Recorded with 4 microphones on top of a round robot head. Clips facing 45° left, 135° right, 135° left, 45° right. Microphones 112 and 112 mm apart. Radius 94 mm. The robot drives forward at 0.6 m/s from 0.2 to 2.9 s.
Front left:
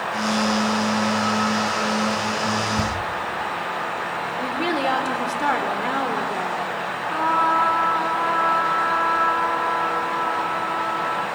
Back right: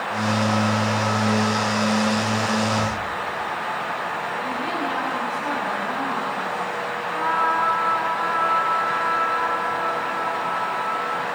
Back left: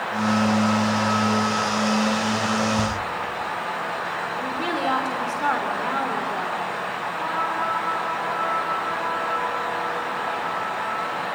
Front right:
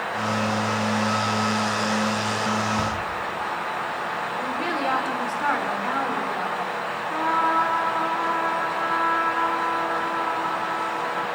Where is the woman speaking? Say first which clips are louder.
Front left 6 dB, back left 1 dB; 55° left, 3.5 m.